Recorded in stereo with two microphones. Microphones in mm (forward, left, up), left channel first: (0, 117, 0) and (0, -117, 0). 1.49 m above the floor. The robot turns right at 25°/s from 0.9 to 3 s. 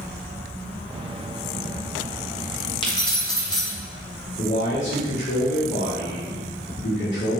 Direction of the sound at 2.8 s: 20° left (ahead or behind).